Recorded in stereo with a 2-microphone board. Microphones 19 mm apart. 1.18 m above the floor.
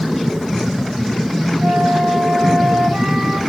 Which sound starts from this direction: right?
A flute, at 1.6 s.